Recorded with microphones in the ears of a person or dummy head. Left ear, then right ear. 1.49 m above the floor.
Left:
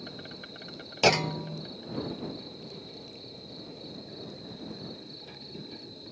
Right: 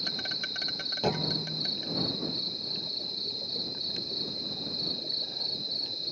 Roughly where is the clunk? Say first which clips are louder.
Left 8 dB; left.